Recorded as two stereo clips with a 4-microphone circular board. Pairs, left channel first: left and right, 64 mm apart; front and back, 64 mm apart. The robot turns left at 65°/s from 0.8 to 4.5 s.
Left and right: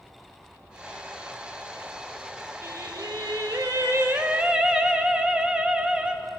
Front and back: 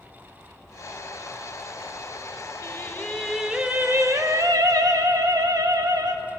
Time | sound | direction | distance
2.6 | singing | 45° right | 0.7 m